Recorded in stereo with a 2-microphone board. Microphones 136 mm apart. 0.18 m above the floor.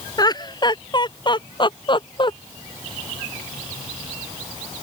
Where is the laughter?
30° left (ahead or behind); by 2.3 s 35° left (ahead or behind).